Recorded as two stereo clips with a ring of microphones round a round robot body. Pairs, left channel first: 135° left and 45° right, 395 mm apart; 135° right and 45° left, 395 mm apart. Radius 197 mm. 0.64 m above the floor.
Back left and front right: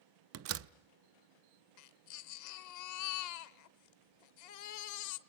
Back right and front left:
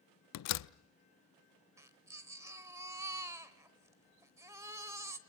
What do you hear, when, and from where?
0.3 s a door slam: 95° right, 0.5 m
1.8 s a baby crying: 130° left, 1.0 m